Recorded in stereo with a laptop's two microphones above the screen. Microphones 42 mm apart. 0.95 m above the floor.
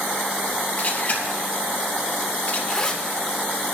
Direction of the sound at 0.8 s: 40° left (ahead or behind).